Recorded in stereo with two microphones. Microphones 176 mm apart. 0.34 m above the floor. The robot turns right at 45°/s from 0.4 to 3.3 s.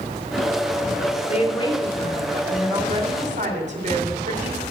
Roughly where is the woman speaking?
Behind left.